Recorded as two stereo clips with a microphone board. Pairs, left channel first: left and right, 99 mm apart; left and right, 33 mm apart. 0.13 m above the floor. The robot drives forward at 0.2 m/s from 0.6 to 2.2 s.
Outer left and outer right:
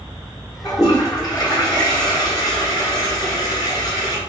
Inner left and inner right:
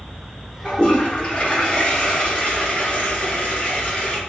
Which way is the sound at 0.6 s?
40° left (ahead or behind).